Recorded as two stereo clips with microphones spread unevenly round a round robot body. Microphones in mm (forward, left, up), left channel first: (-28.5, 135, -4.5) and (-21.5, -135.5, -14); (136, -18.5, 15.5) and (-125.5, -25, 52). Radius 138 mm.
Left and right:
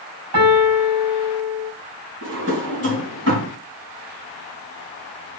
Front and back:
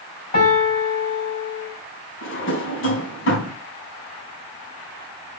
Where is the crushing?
I don't hear crushing.